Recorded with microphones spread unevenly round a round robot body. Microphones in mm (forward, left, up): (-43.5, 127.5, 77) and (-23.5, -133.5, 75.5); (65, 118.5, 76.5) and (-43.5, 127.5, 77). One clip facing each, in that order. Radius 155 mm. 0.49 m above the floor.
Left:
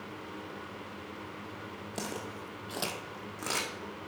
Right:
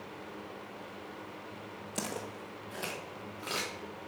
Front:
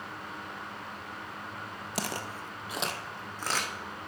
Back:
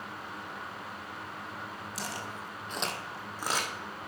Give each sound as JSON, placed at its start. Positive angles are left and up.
{"t": 1.9, "sound": "footsteps", "azimuth_deg": -5, "distance_m": 0.9}